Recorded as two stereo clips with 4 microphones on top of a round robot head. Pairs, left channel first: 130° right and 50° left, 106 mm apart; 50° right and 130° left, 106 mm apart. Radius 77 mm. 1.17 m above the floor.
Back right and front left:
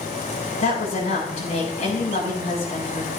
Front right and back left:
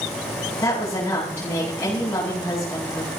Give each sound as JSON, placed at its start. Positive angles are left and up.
{"t": 0.6, "sound": "a woman speaking", "azimuth_deg": -120, "distance_m": 8.5}